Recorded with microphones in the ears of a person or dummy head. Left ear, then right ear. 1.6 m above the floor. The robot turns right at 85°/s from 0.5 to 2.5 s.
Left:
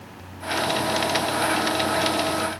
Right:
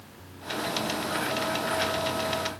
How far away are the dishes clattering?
No dishes clattering in this recording.